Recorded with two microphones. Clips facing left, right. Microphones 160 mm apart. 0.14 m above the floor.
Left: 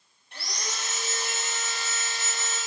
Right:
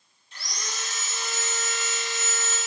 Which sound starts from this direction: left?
Sawing, at 0.3 s.